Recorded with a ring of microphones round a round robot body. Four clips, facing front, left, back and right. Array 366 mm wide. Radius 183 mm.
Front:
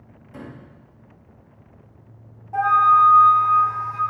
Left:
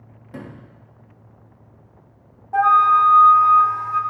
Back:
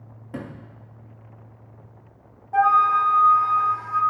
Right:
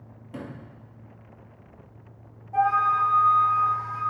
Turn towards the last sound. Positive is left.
turn(degrees=105)